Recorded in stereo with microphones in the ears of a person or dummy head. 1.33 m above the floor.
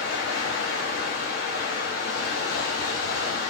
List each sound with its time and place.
0.0 s running water: 70° left (ahead or behind), 1.4 m